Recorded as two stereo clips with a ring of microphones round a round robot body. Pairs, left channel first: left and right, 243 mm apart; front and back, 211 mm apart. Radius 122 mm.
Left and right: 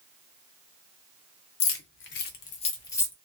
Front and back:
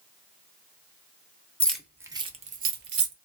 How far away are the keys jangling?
About 0.8 m.